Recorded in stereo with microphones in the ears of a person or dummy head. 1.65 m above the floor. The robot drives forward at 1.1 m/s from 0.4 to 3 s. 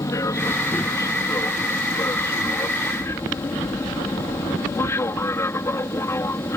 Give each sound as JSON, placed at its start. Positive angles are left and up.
{"t": 0.0, "sound": "an aircraft", "side_deg": 15}